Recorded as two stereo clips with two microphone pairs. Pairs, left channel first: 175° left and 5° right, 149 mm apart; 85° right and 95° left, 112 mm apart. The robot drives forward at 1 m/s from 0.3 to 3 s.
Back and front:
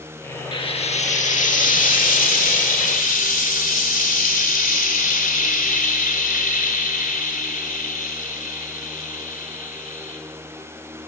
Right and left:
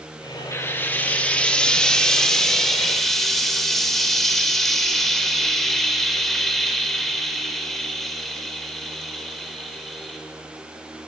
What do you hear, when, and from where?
0.5 s frying: 145° right, 1.0 m; by 10.2 s 170° right, 3 m